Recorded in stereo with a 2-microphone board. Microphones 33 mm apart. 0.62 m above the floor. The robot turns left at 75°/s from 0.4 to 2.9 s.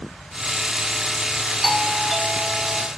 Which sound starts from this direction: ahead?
A doorbell, at 1.6 s.